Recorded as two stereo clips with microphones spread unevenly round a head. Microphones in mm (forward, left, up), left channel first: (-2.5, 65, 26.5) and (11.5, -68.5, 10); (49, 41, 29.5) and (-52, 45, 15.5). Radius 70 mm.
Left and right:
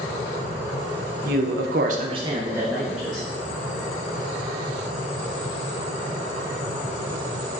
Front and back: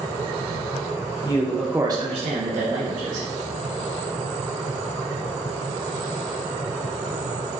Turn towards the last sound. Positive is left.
turn(degrees=-175)